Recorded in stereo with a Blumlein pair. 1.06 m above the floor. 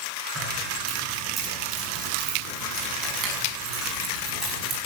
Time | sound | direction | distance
0.3 | keys jangling | 20° right | 9.5 m